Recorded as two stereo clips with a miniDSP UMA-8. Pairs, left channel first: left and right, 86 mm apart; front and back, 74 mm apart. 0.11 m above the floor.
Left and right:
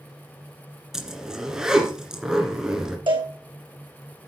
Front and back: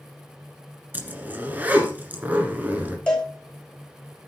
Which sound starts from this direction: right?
A cowbell, at 3.1 s.